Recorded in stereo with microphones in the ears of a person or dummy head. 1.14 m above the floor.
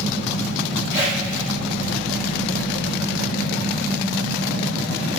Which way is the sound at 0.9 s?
15° right (ahead or behind).